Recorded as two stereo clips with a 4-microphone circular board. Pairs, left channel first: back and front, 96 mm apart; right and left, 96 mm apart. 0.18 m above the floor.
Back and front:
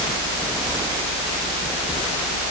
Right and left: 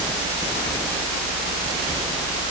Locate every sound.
Only background noise.